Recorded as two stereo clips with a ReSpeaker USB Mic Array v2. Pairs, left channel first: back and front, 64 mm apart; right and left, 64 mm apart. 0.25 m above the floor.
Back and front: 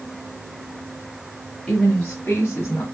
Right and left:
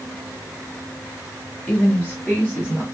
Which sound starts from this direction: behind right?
A woman speaking, at 1.7 s.